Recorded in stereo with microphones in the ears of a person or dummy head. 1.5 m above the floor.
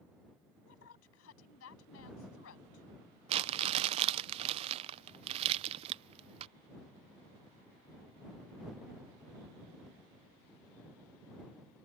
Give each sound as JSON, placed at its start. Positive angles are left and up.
{"t": 0.7, "sound": "a woman speaking", "side_deg": 80}
{"t": 3.3, "sound": "crumpling", "side_deg": -30}